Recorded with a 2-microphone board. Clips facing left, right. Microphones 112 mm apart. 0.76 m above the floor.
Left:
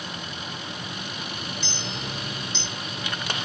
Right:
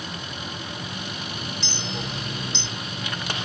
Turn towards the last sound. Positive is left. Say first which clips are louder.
# right 2 dB
turn(degrees=-70)  # may be behind; listen again after turning